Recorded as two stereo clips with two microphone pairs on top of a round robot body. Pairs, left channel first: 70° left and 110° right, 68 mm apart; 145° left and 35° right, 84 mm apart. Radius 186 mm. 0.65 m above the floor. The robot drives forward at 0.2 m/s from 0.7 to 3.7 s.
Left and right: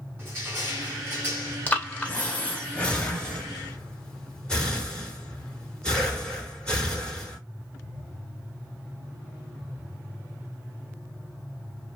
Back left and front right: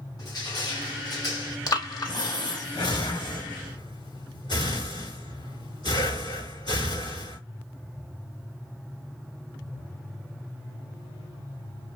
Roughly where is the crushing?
Behind.